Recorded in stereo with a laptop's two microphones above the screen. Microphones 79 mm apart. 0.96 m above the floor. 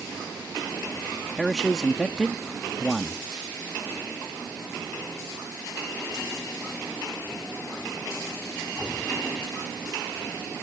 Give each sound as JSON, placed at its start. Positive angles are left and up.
{"t": 1.4, "sound": "a man speaking", "side_deg": 0}